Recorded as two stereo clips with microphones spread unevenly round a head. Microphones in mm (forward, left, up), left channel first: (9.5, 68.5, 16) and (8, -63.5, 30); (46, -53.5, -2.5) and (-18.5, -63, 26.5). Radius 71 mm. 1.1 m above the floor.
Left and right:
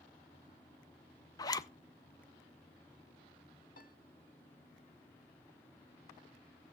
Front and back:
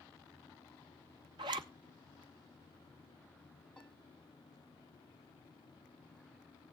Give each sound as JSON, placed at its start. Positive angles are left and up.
{"t": 1.4, "sound": "a zipper", "azimuth_deg": 145, "distance_m": 0.8}
{"t": 3.8, "sound": "a piano", "azimuth_deg": 90, "distance_m": 1.6}